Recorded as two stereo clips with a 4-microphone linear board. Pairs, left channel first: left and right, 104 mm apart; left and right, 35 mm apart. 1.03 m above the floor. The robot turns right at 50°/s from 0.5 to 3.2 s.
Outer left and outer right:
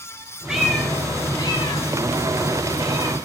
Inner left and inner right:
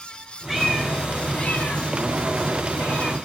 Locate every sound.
0.5 s a cat meowing: 5° right (ahead or behind), 1.3 m; by 3.1 s 55° left (ahead or behind), 1.3 m